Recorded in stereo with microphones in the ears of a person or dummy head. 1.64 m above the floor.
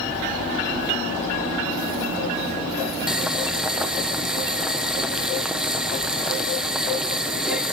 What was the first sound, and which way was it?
Boiling, centre (ahead or behind).